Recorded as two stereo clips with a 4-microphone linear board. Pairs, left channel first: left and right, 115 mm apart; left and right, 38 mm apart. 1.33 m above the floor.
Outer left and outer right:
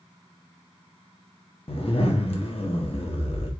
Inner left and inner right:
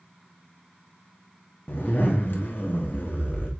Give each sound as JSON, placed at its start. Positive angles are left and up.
{"t": 1.7, "sound": "a zipper", "side_deg": 55, "distance_m": 0.9}